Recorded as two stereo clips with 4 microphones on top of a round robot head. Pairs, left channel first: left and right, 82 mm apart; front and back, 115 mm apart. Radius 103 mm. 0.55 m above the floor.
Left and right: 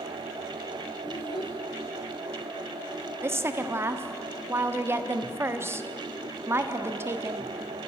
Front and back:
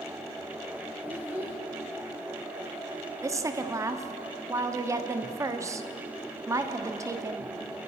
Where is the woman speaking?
130° right, 1.3 m.